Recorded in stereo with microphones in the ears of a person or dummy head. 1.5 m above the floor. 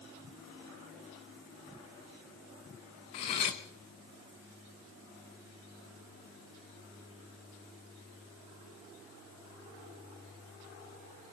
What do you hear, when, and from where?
3.1 s cutlery clinking: 25° left (ahead or behind), 0.7 m